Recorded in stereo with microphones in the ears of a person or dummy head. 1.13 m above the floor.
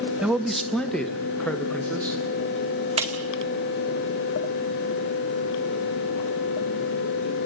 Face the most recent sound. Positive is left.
turn(degrees=-30)  # may be behind; listen again after turning